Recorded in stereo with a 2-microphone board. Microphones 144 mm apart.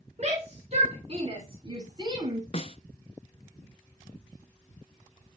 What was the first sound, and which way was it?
A shout, 50° right (ahead or behind).